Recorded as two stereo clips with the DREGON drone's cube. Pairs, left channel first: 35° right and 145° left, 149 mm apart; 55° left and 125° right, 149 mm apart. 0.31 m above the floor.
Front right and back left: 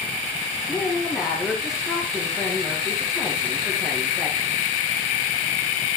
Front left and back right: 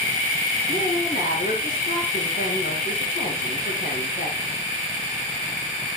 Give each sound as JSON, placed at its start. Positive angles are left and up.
{"t": 0.7, "sound": "a woman speaking", "azimuth_deg": 55, "distance_m": 5.0}